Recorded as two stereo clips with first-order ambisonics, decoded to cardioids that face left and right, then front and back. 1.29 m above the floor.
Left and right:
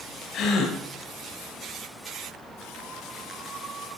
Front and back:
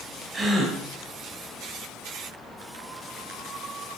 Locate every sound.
0.3 s a gasp: 115° left, 1.3 m